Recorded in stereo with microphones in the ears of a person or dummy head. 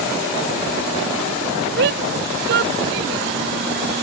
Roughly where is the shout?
Right.